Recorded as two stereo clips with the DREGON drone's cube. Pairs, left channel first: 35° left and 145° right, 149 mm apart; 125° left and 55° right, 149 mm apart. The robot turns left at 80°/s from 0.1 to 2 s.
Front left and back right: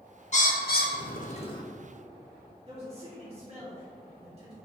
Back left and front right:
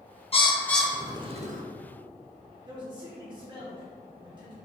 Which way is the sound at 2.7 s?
110° right.